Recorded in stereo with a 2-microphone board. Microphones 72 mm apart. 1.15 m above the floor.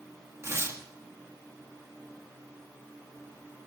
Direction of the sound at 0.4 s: 40° right (ahead or behind).